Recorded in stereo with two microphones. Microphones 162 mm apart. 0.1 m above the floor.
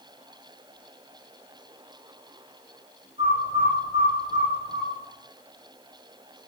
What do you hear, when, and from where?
3.2 s a bird: 40° right (ahead or behind), 5.5 m